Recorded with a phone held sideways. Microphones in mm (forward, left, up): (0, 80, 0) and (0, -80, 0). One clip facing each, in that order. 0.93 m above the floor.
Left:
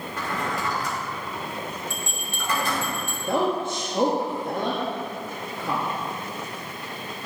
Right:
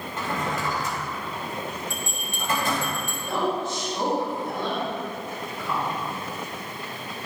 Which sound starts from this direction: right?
A drawer, at 0.2 s.